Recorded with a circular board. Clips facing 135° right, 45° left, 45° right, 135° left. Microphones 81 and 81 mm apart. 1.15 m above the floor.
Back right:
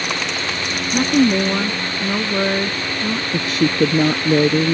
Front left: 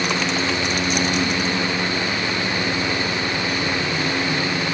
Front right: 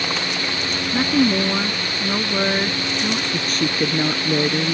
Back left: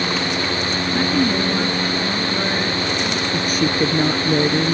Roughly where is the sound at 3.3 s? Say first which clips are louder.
Back right 5 dB, back left 3 dB; behind right.